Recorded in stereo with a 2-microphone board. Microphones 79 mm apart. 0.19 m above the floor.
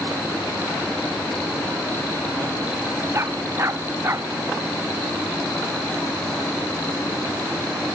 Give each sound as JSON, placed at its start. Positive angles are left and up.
{"t": 3.1, "sound": "a dog barking", "side_deg": -35}